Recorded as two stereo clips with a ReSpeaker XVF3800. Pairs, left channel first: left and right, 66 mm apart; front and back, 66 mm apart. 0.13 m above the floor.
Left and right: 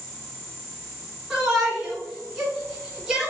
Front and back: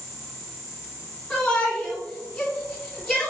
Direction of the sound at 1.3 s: 30° right.